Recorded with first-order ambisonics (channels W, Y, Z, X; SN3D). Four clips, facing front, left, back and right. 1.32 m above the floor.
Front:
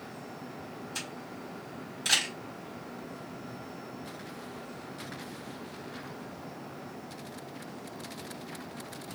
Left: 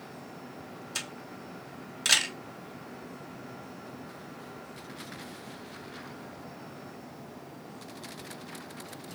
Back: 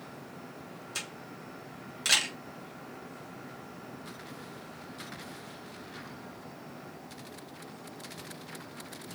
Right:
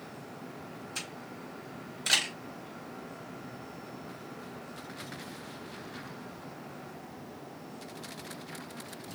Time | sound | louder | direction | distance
0.9 | a camera shutter | left 3 dB, back 1 dB | 110° left | 1.7 m